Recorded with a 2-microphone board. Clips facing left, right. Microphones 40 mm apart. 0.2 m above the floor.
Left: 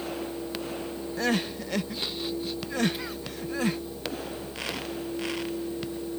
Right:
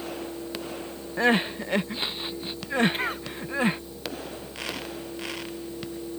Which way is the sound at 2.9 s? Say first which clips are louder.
Right 6 dB; 50° right (ahead or behind).